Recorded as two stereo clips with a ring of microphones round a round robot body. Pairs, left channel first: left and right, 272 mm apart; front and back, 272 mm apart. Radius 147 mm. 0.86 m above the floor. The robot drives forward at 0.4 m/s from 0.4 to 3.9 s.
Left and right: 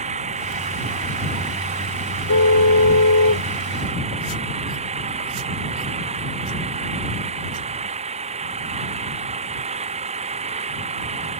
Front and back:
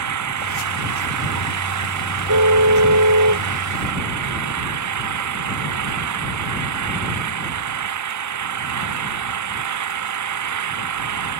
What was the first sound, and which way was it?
An engine running, 160° right.